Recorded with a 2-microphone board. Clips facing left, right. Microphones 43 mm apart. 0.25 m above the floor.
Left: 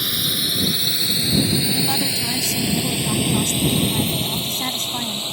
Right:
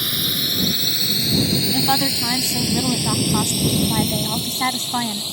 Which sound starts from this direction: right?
A woman speaking, at 1.7 s.